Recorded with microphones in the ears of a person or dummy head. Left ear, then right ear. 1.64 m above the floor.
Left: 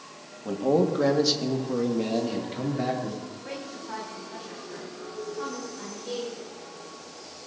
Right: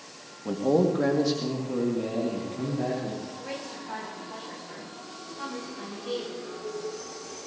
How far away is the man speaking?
About 1.6 m.